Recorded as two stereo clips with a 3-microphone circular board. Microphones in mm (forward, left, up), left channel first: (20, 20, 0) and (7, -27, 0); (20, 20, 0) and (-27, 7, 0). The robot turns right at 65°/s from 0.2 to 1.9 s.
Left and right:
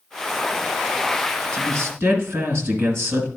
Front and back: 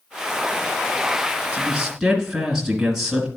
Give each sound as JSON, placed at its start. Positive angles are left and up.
{"t": 1.5, "sound": "a man speaking", "azimuth_deg": -105, "distance_m": 2.0}